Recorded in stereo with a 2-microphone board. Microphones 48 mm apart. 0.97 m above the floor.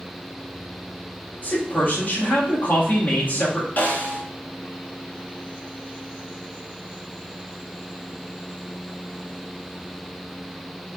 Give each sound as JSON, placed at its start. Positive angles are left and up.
{"t": 1.4, "sound": "a man speaking", "side_deg": 40, "distance_m": 1.5}
{"t": 3.8, "sound": "a snare drum", "side_deg": 45, "distance_m": 2.0}